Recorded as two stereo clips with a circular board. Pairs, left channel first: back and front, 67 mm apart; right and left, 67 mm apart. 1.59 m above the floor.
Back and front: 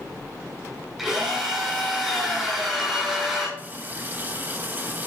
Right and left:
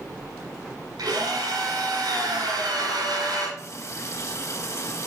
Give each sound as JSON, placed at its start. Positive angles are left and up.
{"t": 1.0, "sound": "a drill", "azimuth_deg": 85, "distance_m": 6.5}
{"t": 3.6, "sound": "a running tap", "azimuth_deg": -55, "distance_m": 1.3}